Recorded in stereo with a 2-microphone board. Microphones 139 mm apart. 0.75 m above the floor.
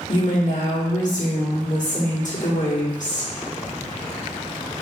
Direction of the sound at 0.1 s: 65° left (ahead or behind).